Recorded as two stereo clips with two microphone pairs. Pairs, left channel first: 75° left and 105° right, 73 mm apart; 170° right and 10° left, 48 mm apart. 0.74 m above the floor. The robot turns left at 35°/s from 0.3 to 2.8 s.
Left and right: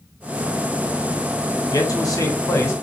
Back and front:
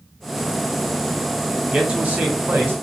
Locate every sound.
1.6 s a man speaking: 85° left, 1.5 m; by 2.7 s 45° left, 1.5 m